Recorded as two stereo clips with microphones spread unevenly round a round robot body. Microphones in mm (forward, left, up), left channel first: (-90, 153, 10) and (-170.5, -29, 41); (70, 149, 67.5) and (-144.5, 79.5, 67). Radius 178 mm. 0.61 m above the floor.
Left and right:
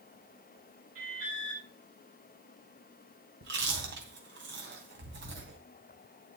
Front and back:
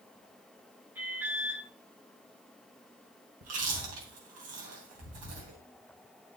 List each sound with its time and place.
0.9 s an alarm: 80° right, 3.5 m
3.4 s chewing: 140° right, 3 m